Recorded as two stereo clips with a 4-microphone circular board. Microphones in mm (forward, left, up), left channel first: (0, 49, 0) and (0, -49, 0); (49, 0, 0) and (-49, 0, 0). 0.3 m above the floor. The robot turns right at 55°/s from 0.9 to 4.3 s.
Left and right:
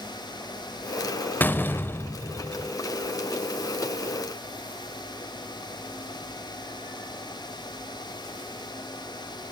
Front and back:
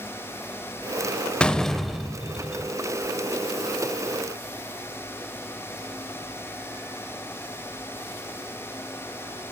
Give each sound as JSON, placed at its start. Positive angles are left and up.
{"t": 1.4, "sound": "a door slam", "azimuth_deg": 60, "distance_m": 0.6}